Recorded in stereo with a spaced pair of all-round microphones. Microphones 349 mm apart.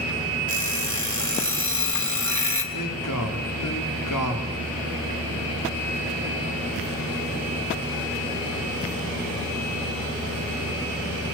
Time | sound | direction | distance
0.5 | an alarm clock | 60° left (ahead or behind) | 2.5 m
2.7 | a man speaking | 70° left (ahead or behind) | 4 m